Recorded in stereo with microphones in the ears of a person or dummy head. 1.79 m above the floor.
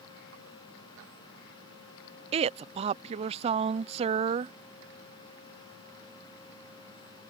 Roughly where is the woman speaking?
Right.